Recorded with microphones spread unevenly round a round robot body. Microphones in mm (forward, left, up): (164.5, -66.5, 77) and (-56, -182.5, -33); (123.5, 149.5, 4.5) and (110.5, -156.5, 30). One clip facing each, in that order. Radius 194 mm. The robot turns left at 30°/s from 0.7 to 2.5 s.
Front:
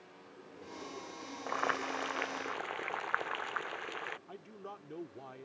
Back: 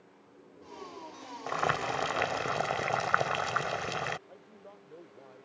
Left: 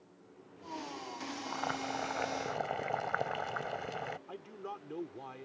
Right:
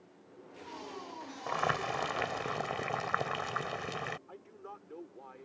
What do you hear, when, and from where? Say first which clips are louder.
1.5 s boiling: back 5 dB, right 6 dB; 130° right; by 4.2 s 160° right
4.3 s a man speaking: front 4 dB, left 5 dB; 70° left